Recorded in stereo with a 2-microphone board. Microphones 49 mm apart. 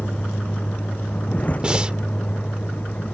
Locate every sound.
0.0 s a vehicle: 25° left (ahead or behind)
1.6 s breathing: 15° right (ahead or behind)